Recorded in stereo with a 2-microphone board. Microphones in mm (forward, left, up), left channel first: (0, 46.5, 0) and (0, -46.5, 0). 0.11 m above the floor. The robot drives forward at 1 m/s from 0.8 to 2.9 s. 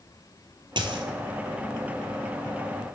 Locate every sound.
0.8 s a dropped coin: 60° right (ahead or behind), 0.7 m; by 1.0 s 65° right (ahead or behind), 0.6 m